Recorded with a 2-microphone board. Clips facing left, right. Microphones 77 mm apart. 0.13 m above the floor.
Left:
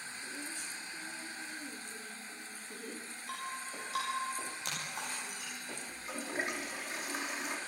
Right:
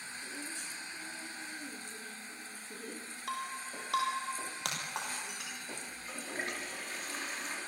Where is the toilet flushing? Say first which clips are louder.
Left 2 dB; 15° left (ahead or behind), 5 m.